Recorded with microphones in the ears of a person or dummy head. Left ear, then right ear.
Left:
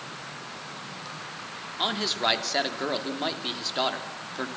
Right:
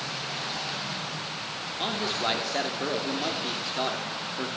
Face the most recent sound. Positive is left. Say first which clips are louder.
# left 3 dB
turn(degrees=25)  # may be behind; listen again after turning